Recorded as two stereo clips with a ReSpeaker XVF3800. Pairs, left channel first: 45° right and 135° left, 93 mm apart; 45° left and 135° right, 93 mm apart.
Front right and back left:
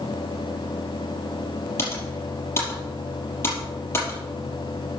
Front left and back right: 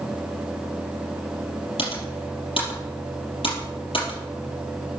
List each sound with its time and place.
1.8 s typing on a keyboard: 20° left, 5 m